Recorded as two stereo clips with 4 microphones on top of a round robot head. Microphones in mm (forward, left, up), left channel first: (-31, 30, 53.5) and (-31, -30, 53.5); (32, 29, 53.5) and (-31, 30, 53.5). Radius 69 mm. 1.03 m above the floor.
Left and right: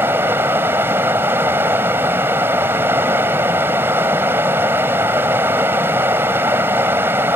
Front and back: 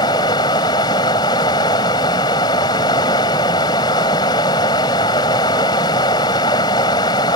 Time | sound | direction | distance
0.0 | running water | 25° right | ?